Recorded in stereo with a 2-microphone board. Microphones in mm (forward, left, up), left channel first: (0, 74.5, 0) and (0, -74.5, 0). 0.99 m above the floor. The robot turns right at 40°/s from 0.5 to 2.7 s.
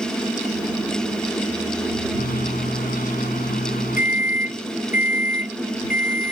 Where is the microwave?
85° left; by 6.3 s 75° left (ahead or behind).